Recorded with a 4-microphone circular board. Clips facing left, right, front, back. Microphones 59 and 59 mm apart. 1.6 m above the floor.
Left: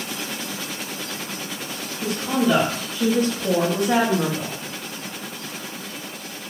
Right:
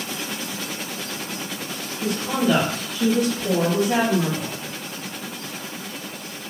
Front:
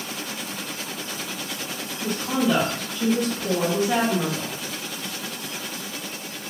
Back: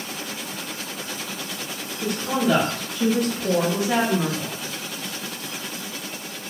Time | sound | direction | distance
2.0 | a woman speaking | 170° left | 1.4 m